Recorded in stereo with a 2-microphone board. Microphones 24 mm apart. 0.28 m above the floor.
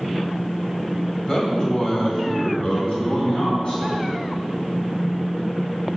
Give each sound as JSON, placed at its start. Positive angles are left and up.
{"t": 1.2, "sound": "a man speaking", "side_deg": 30, "distance_m": 1.8}